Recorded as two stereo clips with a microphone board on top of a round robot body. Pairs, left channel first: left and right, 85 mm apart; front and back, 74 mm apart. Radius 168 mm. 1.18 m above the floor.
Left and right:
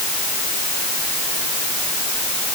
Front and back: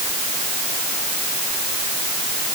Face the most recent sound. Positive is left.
No sound to turn to.